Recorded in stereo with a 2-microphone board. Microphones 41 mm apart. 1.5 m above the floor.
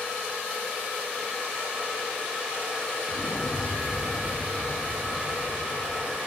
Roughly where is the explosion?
Left.